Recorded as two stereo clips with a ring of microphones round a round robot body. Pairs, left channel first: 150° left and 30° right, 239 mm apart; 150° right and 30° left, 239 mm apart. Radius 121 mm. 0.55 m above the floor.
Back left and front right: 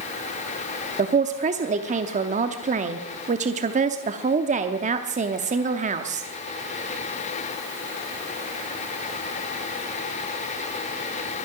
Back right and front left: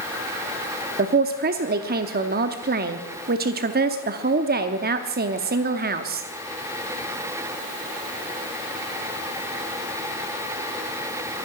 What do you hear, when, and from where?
1.0 s a man speaking: 10° left, 0.8 m